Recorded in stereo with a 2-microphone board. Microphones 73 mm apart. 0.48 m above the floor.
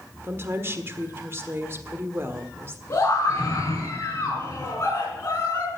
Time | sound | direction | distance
0.2 | a woman speaking | 35° right (ahead or behind) | 1.4 m
2.9 | a scream | 40° left (ahead or behind) | 4.5 m